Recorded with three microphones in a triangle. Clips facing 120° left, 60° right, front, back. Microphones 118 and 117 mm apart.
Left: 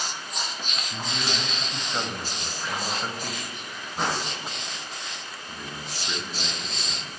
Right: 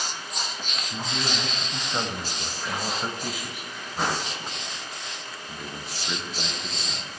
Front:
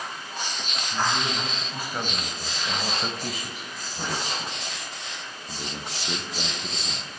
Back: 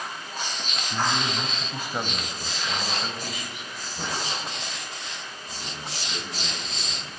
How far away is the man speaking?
About 2.5 m.